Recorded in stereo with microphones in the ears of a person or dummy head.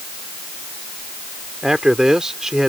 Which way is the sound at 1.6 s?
Centre (ahead or behind).